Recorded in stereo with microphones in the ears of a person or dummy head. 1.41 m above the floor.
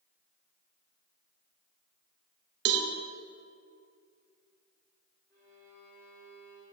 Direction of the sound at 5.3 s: 20° left (ahead or behind).